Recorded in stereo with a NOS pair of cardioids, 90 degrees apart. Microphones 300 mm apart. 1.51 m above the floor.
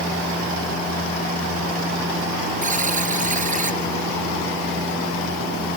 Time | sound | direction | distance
2.6 | a buzzer | 25° right | ?